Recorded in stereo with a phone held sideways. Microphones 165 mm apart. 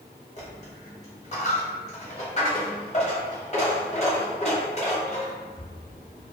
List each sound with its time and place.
0.4 s a dropped coin: 40° left (ahead or behind), 1.1 m